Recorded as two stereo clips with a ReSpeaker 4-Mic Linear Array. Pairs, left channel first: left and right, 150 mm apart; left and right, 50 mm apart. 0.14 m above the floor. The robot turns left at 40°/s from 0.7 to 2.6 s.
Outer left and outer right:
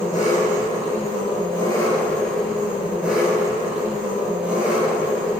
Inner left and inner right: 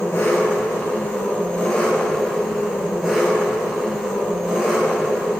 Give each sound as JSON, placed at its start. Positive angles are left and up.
{"t": 0.0, "sound": "an engine running", "azimuth_deg": 65, "distance_m": 2.5}